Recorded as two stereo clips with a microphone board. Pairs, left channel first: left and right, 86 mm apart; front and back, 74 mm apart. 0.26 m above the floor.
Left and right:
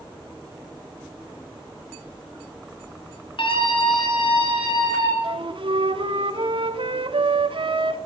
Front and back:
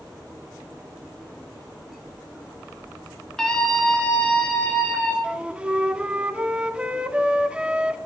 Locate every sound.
3.4 s a scream: 80° left, 3 m; by 5.1 s 75° left, 4 m
5.2 s a flute: 105° right, 0.7 m